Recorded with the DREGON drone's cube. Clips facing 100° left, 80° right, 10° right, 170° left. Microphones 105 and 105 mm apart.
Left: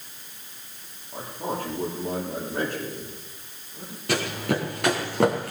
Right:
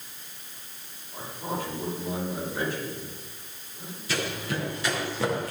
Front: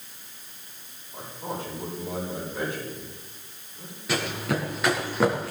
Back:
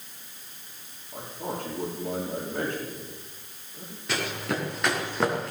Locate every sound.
1.1 s a man speaking: 140° left, 10 m
4.1 s running footsteps: 75° left, 6 m